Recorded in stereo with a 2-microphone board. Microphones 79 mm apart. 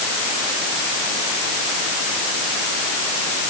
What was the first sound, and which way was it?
Only background noise.